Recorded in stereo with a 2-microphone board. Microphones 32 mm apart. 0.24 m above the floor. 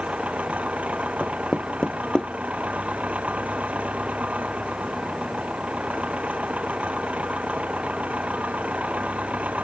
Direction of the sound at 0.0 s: 45° right (ahead or behind).